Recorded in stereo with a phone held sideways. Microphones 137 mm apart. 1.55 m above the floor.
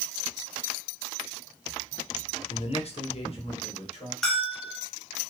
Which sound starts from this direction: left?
A man speaking, at 2.5 s.